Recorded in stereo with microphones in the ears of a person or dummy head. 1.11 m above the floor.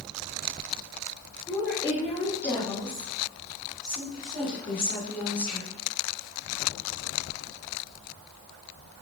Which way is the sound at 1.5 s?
5° left (ahead or behind).